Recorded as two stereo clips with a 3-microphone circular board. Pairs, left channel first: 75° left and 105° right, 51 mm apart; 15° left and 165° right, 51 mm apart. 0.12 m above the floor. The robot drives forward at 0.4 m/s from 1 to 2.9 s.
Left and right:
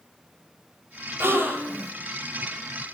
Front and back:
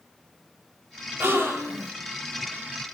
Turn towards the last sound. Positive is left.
turn(degrees=-160)